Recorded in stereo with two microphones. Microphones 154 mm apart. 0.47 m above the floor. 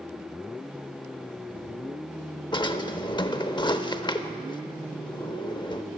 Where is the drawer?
30° left (ahead or behind), 0.6 m.